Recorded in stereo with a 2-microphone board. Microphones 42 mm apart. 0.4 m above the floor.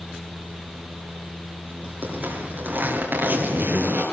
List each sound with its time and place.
2.0 s a zipper: 50° right (ahead or behind), 7.5 m